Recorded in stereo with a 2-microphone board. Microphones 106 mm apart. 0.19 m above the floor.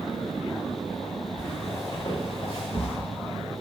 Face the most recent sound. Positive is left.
turn(degrees=55)  # may be behind; listen again after turning